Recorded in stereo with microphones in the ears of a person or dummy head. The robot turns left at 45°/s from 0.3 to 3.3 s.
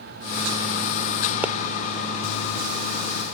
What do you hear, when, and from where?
1.4 s a pop: 5° right (ahead or behind); by 1.5 s centre (ahead or behind)